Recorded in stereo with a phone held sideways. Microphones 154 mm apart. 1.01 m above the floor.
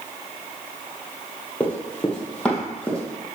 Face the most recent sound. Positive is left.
turn(degrees=5)  # may be behind; listen again after turning